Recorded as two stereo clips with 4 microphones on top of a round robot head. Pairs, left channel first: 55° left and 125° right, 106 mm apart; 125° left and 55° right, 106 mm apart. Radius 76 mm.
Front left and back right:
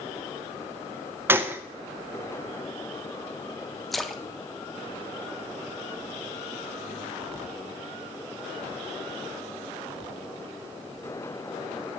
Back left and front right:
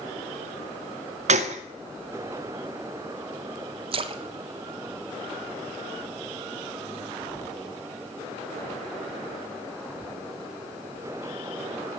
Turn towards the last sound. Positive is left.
turn(degrees=-35)